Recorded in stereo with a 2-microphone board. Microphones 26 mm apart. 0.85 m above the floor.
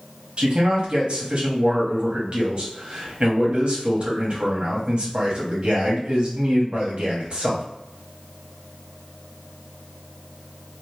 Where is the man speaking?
50° right (ahead or behind), 1.0 m.